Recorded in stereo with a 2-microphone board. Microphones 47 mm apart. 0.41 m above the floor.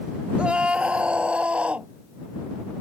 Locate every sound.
0.4 s a scream: 20° right (ahead or behind); by 1.9 s 25° right (ahead or behind)